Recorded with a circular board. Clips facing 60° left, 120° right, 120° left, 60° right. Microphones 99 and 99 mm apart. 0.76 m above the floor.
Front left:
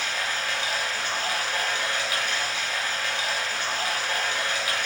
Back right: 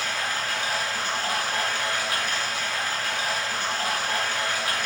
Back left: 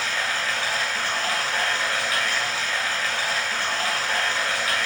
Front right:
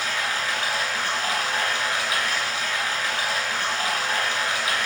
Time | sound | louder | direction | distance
0.0 | running water | back right 1 dB, even | 120° right | 0.8 m